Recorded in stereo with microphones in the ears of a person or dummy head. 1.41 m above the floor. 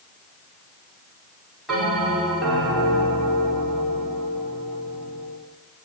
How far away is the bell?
About 4.5 m.